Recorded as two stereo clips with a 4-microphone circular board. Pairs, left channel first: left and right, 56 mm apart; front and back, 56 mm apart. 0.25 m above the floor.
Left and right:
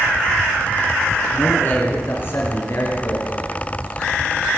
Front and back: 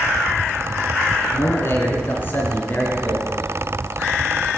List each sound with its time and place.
1.3 s a man speaking: 35° left, 3.5 m; by 3.3 s 55° left, 4 m